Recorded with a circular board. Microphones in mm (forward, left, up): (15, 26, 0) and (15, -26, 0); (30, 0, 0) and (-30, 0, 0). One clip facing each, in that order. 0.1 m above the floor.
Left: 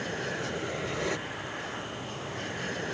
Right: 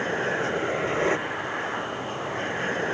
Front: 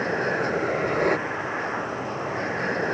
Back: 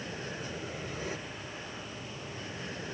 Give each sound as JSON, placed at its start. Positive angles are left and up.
{"t": 0.0, "sound": "an aircraft", "azimuth_deg": -30}